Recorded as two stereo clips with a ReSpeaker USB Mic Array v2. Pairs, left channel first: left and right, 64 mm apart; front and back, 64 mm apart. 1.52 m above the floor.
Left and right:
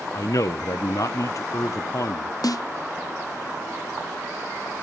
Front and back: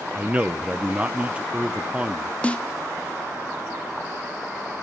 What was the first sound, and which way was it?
A man speaking, 110° left.